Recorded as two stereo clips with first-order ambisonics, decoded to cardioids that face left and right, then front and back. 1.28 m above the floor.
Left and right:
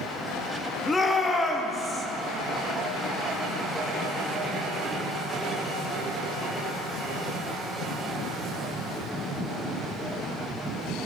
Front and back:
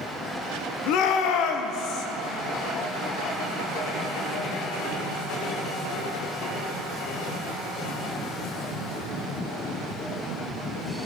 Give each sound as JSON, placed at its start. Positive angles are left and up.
{"t": 0.9, "sound": "a shout", "azimuth_deg": 15, "distance_m": 0.6}